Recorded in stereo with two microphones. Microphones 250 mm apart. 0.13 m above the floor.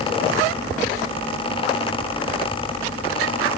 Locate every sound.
Only background noise.